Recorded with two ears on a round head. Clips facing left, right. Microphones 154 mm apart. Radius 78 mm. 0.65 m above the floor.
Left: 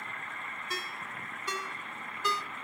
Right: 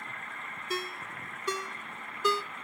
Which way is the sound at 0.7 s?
75° right (ahead or behind).